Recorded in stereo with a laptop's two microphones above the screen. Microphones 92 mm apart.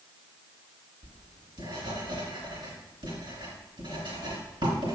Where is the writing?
65° right (ahead or behind), 3 m.